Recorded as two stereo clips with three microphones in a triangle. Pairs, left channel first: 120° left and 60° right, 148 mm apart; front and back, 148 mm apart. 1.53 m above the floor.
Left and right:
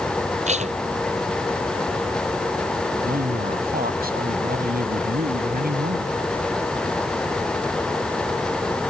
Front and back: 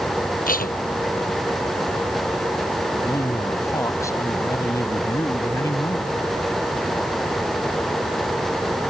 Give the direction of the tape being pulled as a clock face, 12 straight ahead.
1 o'clock.